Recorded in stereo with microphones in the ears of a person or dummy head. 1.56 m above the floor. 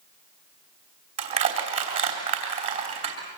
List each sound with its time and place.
1.2 s crushing: 40° right (ahead or behind), 3 m